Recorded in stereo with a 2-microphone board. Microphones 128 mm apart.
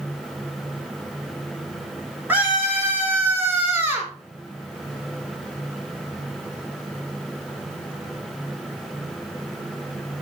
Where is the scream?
15° right (ahead or behind), 6 m.